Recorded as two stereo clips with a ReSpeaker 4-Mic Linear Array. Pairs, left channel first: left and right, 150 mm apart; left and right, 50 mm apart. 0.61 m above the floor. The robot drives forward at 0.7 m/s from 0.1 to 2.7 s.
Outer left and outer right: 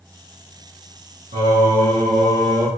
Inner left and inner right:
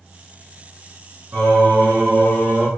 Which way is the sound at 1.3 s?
65° right (ahead or behind).